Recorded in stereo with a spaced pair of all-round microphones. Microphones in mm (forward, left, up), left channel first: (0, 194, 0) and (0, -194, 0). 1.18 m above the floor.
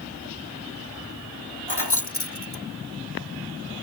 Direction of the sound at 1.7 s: 75° left (ahead or behind).